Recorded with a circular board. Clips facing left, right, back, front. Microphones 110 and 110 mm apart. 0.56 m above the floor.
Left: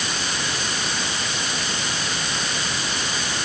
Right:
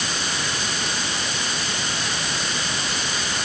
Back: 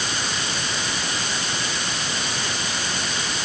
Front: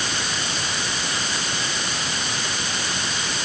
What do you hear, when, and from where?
Only background noise.